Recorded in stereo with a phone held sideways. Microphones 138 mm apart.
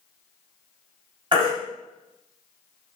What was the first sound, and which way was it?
A baby crying, 40° right (ahead or behind).